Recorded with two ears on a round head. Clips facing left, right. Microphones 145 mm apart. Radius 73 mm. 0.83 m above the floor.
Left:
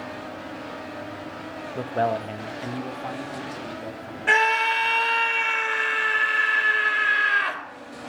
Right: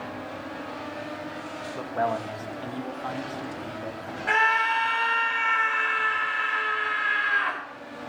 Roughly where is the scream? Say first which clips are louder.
Left 3 dB; left.